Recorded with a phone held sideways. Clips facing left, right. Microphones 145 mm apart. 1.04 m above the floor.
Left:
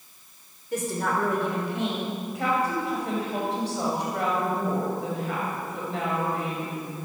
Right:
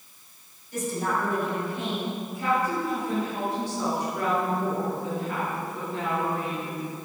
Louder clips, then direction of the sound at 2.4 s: Even; 75° left (ahead or behind).